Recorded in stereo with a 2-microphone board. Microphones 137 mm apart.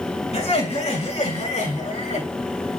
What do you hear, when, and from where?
0.3 s laughter: 50° left (ahead or behind), 6.5 m; by 2.3 s 60° left (ahead or behind), 6 m